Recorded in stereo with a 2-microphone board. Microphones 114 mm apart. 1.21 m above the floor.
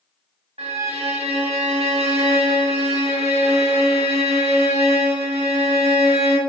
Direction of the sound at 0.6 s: 60° right (ahead or behind).